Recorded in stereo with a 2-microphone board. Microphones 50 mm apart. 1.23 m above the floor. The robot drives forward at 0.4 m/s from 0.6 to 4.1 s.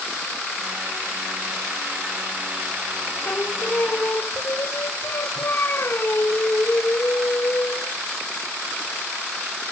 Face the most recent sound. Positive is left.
turn(degrees=45)  # may be behind; listen again after turning